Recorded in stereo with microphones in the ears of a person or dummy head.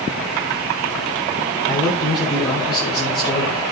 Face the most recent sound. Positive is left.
turn(degrees=20)  # may be behind; listen again after turning